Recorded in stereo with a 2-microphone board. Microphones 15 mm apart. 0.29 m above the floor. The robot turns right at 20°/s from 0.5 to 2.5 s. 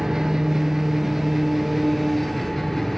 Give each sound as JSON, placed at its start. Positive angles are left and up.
{"t": 0.0, "sound": "an engine running", "azimuth_deg": -35, "distance_m": 1.1}